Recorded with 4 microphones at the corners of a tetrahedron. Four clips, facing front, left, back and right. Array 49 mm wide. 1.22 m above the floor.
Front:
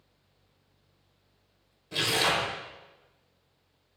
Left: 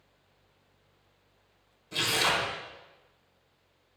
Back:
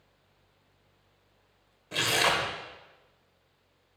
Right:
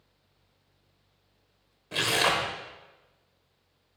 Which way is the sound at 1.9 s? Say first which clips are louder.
Right 2 dB, back 1 dB; 125° right.